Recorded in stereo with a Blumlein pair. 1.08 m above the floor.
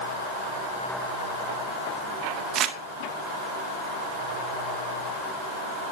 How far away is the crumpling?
About 1.0 m.